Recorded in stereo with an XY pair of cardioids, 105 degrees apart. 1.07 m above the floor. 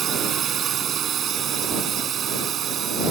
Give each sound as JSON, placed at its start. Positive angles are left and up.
{"t": 0.0, "sound": "a drone", "azimuth_deg": -60}